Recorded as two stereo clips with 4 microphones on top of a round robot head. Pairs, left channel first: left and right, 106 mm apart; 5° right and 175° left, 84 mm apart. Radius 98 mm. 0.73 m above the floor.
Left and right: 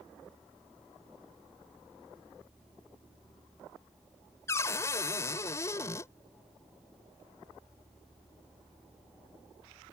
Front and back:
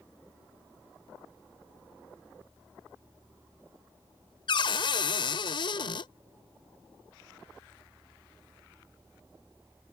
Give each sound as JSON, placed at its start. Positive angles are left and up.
{"t": 4.5, "sound": "a cupboard door", "azimuth_deg": 20}